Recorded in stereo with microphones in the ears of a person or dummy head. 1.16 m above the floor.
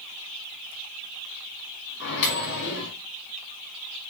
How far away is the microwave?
About 3 m.